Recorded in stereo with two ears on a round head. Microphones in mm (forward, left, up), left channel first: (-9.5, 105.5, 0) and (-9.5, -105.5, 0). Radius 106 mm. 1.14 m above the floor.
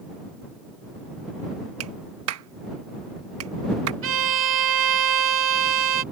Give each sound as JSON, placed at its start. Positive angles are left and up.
{"t": 1.8, "sound": "a clap", "side_deg": -65}
{"t": 4.0, "sound": "a violin", "side_deg": -60}